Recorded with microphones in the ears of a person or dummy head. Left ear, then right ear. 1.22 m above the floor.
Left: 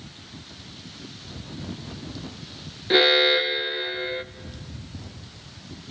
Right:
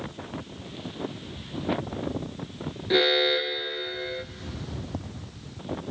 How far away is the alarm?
About 0.6 m.